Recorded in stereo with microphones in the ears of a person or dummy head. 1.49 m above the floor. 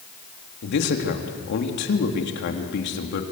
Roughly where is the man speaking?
Left.